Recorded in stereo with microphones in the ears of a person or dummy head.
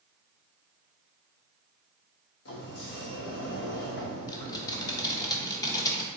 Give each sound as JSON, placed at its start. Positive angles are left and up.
{"t": 2.5, "sound": "a sliding door", "side_deg": 60, "distance_m": 0.9}
{"t": 4.3, "sound": "typing on a keyboard", "side_deg": 25, "distance_m": 0.9}